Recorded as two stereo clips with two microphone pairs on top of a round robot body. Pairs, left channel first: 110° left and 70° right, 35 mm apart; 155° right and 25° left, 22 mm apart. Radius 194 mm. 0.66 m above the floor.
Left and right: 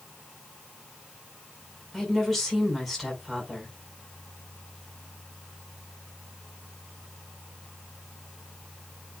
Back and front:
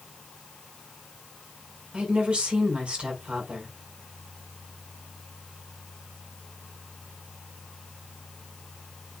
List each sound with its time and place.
1.9 s a woman speaking: 25° left, 5.5 m